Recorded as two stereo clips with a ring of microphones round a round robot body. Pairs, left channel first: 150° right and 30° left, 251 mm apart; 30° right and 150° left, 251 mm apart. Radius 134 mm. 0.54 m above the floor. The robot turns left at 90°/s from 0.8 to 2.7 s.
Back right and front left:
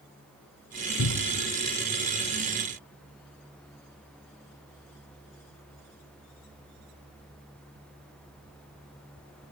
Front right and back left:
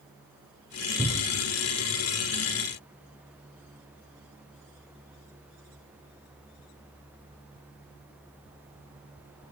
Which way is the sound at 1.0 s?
130° right.